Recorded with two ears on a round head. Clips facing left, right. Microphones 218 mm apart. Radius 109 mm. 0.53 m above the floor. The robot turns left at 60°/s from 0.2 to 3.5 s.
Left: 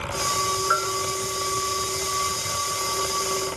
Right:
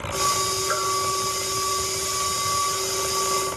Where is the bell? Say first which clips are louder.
Even; 50° right (ahead or behind), 4 m; by 0.9 s 65° right (ahead or behind), 4 m.